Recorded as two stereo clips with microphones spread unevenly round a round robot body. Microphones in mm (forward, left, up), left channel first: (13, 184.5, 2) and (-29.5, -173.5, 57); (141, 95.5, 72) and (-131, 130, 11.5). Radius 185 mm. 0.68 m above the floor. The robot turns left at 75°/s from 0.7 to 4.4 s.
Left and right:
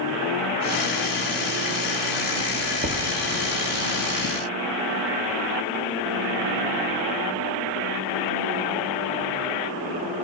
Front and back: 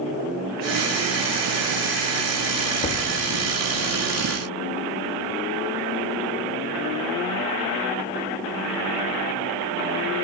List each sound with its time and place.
2.8 s knocking: 30° right, 1.1 m; by 3.1 s 45° right, 1.1 m